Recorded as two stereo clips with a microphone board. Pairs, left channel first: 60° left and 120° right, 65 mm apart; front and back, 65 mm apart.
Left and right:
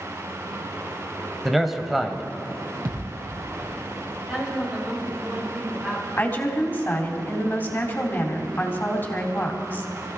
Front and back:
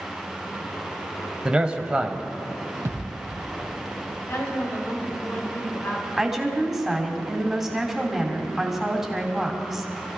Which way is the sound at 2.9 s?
140° right.